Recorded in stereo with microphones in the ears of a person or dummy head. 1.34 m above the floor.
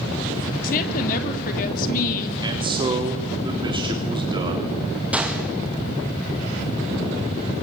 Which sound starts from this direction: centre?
A gunshot, at 5.1 s.